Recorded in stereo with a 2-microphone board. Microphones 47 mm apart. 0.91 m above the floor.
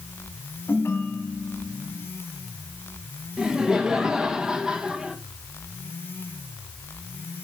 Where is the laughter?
15° right (ahead or behind), 1.0 m.